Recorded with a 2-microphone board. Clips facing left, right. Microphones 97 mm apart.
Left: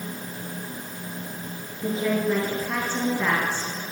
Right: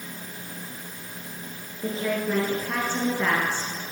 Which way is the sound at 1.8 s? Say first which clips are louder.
Left 3 dB; centre (ahead or behind).